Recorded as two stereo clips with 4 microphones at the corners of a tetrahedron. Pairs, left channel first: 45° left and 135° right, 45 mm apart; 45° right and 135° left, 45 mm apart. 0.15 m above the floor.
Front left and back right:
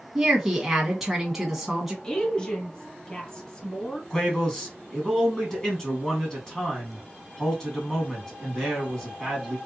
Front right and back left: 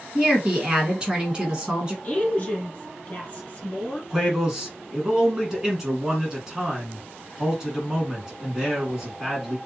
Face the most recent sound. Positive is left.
turn(degrees=85)